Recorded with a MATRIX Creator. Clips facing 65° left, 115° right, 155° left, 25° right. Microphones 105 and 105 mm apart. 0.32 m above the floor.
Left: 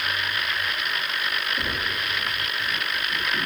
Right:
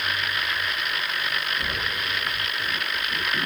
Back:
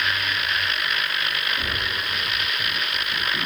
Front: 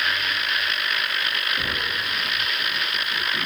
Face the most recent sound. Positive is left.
turn(degrees=20)